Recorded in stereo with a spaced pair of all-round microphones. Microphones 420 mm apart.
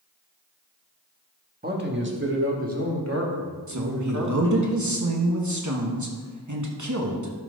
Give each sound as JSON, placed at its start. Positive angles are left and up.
{"t": 1.6, "sound": "a man speaking", "side_deg": -20, "distance_m": 1.5}
{"t": 3.7, "sound": "a woman speaking", "side_deg": -45, "distance_m": 1.2}